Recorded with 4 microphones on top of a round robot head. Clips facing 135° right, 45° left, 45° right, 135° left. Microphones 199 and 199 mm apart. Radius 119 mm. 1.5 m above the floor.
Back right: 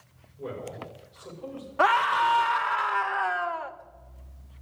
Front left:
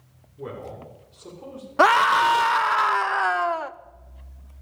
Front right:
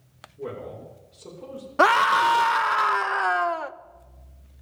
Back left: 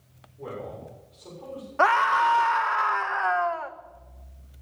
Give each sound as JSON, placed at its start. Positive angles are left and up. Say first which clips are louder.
{"t": 0.4, "sound": "a man speaking", "louder": "front left 1 dB, front right 2 dB", "azimuth_deg": 15, "distance_m": 7.0}
{"t": 1.8, "sound": "a scream", "louder": "front left 6 dB, front right 3 dB", "azimuth_deg": 5, "distance_m": 0.6}